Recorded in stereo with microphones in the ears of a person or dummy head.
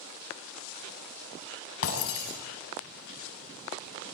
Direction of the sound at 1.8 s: 80° left.